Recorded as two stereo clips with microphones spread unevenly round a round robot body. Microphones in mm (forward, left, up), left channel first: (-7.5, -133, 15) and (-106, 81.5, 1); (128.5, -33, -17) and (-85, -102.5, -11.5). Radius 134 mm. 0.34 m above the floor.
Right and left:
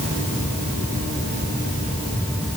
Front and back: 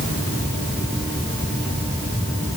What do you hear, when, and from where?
Only background noise.